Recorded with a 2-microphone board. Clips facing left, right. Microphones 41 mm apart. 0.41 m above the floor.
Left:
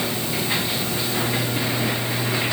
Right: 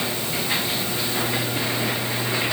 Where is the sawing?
No sawing in this recording.